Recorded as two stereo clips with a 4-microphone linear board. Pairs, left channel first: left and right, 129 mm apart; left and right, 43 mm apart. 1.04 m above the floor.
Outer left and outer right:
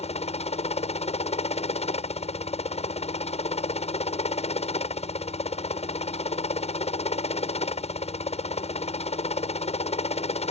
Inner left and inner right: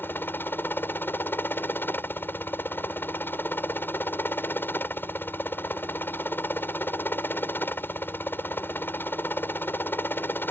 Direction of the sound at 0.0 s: 55° left (ahead or behind).